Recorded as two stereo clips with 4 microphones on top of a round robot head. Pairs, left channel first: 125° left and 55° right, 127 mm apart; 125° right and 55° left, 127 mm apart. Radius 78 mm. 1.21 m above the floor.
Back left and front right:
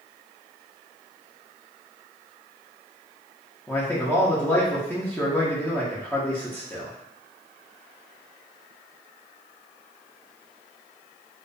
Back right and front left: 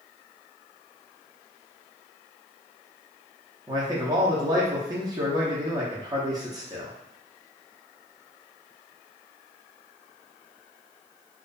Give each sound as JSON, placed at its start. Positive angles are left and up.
{"t": 3.7, "sound": "a man speaking", "azimuth_deg": 65, "distance_m": 0.6}